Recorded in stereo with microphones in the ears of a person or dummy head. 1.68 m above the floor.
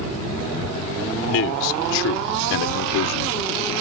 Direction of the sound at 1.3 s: 75° left (ahead or behind).